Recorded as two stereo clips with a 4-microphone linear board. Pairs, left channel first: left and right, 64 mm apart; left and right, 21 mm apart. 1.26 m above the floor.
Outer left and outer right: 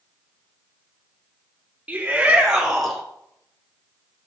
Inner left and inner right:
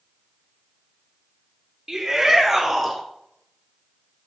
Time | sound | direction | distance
1.9 | a shout | 20° right (ahead or behind) | 3 m